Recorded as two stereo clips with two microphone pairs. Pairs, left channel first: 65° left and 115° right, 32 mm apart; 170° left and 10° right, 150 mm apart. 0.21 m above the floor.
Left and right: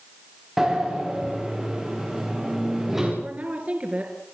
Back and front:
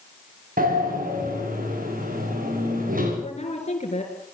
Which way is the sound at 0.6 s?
35° right.